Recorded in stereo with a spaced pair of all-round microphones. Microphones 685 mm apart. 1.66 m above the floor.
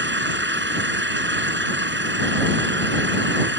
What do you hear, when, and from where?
0.0 s an engine running: 15° right (ahead or behind)